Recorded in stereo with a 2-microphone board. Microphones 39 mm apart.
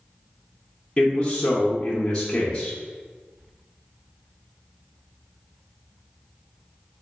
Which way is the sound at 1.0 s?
25° left (ahead or behind).